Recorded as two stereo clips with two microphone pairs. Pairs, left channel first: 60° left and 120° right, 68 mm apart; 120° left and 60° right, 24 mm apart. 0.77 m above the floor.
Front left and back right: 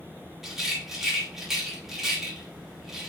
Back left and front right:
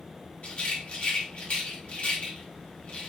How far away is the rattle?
About 3 m.